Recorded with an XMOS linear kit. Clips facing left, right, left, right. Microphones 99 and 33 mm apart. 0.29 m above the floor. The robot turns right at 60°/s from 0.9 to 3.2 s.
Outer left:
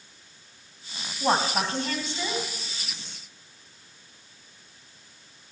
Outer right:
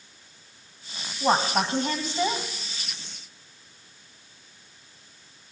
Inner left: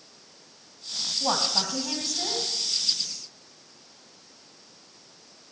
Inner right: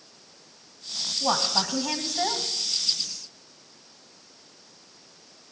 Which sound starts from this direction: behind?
A woman speaking, at 1.2 s.